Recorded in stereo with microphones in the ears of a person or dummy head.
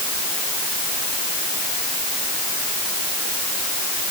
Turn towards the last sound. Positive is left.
No sound to turn to.